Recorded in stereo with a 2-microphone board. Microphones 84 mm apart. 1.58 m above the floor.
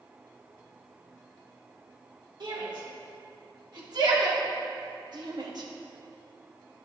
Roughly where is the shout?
Right.